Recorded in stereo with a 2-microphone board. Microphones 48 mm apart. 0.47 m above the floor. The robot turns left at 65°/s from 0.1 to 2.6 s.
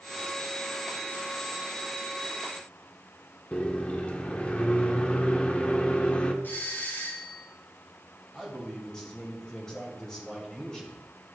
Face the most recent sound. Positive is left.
turn(degrees=15)  # may be behind; listen again after turning